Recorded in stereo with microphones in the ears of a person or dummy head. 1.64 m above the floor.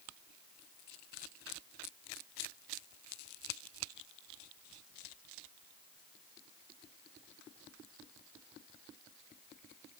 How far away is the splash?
I don't hear a splash.